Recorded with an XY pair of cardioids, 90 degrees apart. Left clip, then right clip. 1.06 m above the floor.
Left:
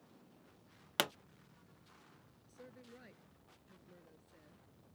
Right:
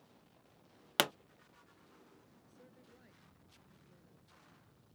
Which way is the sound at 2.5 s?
50° left.